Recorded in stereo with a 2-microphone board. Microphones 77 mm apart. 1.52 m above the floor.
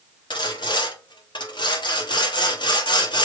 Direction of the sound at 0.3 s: 75° left (ahead or behind).